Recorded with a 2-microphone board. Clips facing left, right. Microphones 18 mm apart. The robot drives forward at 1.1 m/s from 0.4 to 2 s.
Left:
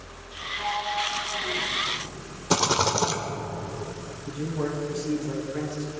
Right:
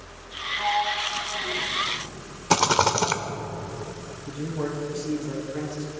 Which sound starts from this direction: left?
A man speaking, at 4.3 s.